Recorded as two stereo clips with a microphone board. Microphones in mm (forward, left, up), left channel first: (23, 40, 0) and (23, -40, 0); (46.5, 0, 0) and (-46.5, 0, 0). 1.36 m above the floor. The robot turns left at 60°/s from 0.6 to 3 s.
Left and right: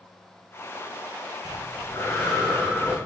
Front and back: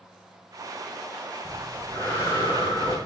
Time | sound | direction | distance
1.4 | breathing | 90° left | 1.8 m